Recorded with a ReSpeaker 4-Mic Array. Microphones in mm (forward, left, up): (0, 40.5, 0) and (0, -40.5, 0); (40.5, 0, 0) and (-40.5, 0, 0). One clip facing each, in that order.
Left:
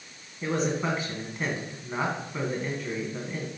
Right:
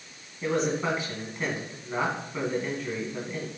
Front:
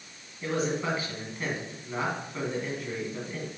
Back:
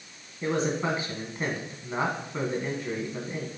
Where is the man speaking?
Straight behind, 1.8 m.